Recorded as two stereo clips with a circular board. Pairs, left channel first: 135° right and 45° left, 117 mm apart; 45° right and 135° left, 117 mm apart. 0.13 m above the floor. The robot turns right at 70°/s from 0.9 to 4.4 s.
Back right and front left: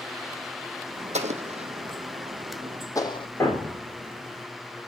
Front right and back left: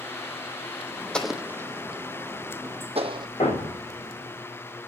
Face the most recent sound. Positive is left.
turn(degrees=0)